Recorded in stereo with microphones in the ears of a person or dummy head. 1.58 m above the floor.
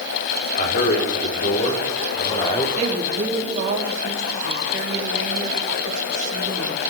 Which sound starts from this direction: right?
A woman speaking, at 2.8 s.